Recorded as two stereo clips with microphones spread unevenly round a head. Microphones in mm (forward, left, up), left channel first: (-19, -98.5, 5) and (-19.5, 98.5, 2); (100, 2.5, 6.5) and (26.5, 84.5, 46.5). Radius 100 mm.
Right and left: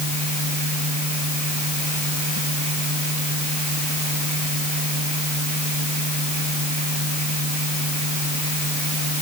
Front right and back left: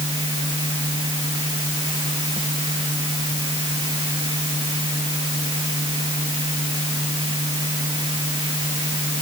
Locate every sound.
0.0 s a fan: 85° left